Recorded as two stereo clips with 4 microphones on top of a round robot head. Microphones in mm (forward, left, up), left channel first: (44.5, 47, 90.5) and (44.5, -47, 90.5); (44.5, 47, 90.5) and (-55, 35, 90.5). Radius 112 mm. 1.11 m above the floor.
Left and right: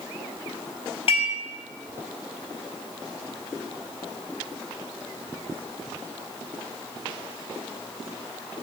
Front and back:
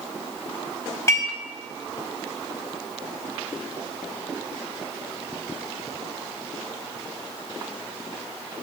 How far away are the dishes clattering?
About 4.5 m.